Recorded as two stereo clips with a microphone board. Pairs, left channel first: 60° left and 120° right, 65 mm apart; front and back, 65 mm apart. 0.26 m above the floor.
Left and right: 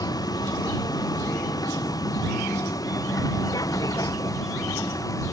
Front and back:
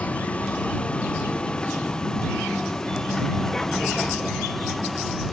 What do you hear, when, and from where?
0.0 s a vehicle: 70° left; by 5.3 s 90° left